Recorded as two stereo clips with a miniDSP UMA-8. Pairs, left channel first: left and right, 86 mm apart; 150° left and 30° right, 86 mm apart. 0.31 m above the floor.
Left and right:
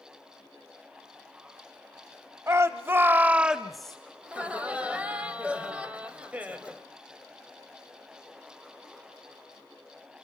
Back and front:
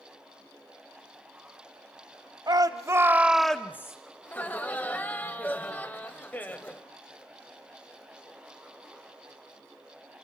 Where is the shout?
45° right, 1.5 m; by 4.0 s 170° left, 1.2 m.